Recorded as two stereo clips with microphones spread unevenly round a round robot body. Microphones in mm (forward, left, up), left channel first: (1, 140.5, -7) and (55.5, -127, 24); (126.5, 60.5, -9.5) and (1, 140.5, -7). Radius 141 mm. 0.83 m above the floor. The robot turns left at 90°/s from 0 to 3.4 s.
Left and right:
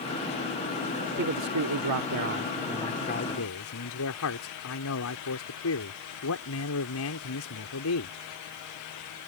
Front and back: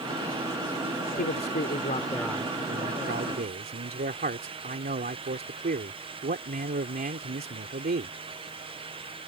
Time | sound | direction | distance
1.2 | a man speaking | 25° right | ?